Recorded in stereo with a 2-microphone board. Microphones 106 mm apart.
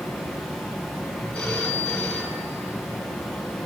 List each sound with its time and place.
0.0 s running water: centre (ahead or behind), 7 m
1.3 s a phone ringing: 10° left (ahead or behind), 5.5 m